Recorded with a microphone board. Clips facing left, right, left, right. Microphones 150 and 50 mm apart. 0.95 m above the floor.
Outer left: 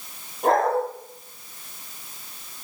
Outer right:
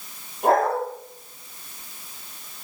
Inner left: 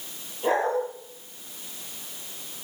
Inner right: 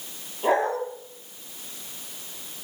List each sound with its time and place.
0.4 s a dog barking: 5° right (ahead or behind), 9 m